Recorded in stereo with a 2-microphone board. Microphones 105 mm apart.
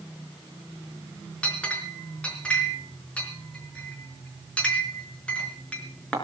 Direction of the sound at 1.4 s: 10° left (ahead or behind).